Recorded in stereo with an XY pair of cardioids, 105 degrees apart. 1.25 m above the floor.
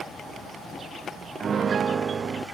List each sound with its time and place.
1.4 s a piano: 45° right, 0.8 m